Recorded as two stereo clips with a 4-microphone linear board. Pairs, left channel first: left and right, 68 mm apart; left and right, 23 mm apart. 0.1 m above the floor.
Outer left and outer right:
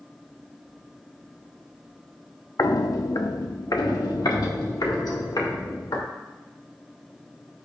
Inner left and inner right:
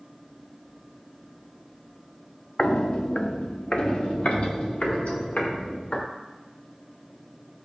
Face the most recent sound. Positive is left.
turn(degrees=75)  # may be behind; listen again after turning